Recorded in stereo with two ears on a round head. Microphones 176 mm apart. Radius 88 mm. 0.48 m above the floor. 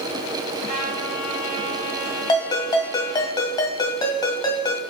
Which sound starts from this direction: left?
A ringtone, at 2.3 s.